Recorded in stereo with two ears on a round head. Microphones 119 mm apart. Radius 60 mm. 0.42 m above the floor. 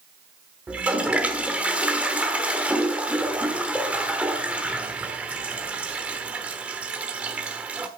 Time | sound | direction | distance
0.7 | a toilet flushing | 10° right (ahead or behind) | 1.2 m